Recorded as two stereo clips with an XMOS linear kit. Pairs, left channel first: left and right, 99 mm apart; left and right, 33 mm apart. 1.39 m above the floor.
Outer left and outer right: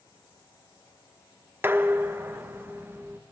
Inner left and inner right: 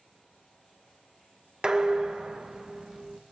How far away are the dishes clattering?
About 0.7 m.